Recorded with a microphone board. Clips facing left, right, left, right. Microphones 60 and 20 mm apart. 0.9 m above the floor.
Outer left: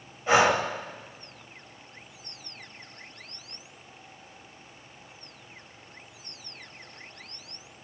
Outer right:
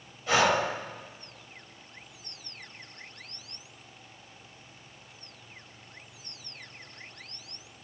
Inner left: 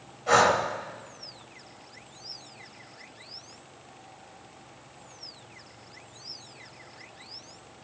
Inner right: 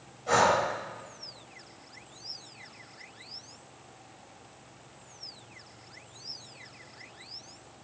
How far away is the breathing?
About 2.5 m.